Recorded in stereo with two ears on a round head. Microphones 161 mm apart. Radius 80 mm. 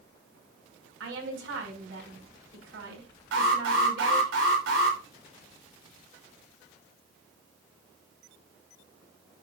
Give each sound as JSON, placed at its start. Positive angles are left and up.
{"t": 1.0, "sound": "a woman speaking", "side_deg": -75, "distance_m": 6.0}
{"t": 3.3, "sound": "an alarm", "side_deg": -80, "distance_m": 4.5}